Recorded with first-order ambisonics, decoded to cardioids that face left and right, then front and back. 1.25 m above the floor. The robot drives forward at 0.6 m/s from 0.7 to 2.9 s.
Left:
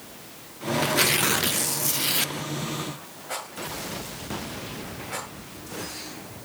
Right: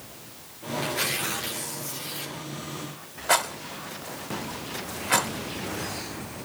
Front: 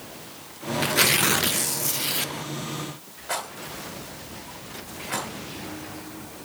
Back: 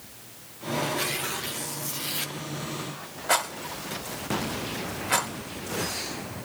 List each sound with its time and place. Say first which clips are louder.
0.8 s tearing paper: left 6 dB, front 9 dB; 25° left, 1.1 m; by 2.3 s 85° left, 0.6 m
3.3 s a rattle: right 9 dB, back 5 dB; 120° right, 1.9 m